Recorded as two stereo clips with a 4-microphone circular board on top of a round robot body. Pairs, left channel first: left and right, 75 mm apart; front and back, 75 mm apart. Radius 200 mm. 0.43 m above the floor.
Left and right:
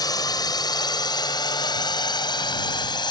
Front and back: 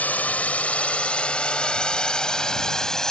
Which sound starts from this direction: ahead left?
A drone, at 0.0 s.